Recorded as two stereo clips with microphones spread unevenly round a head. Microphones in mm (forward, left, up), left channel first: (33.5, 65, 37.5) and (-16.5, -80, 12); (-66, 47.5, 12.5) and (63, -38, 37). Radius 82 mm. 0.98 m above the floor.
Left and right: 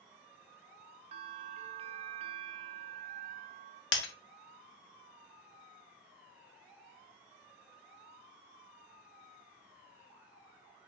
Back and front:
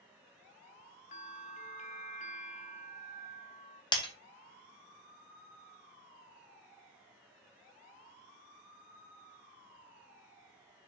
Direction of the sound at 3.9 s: 80° left.